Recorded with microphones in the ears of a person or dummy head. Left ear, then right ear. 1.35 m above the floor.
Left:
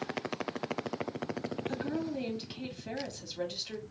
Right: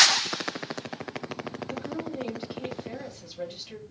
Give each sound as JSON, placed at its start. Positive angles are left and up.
{"t": 1.7, "sound": "a woman speaking", "side_deg": 45, "distance_m": 2.5}